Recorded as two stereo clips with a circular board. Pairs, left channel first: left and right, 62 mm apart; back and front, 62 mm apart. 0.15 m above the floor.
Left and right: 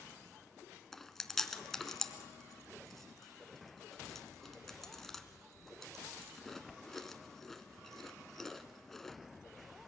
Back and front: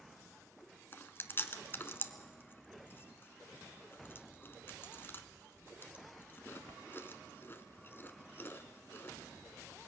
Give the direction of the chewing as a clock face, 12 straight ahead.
6 o'clock.